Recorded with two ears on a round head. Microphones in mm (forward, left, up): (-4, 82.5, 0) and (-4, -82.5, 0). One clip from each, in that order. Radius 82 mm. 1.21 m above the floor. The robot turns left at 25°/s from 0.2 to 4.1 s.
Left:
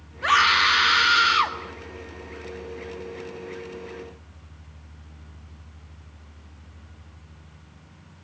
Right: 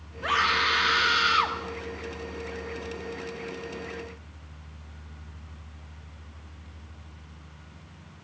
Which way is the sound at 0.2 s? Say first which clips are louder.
Left 6 dB; 40° left.